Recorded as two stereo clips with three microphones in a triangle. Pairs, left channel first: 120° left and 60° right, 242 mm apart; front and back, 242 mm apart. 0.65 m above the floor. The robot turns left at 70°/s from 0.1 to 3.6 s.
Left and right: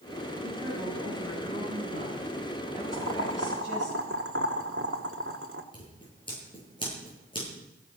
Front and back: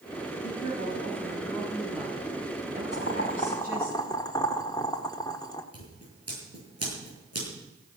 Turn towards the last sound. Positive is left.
turn(degrees=-170)